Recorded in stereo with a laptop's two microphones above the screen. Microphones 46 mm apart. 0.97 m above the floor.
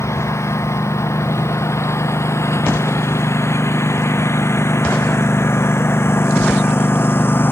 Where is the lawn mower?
75° left (ahead or behind); by 7.5 s 50° left (ahead or behind).